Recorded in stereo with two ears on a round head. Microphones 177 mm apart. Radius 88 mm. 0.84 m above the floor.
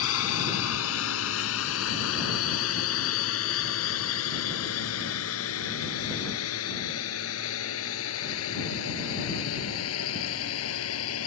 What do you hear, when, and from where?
0.0 s a drone: 80° left; by 11.3 s 85° left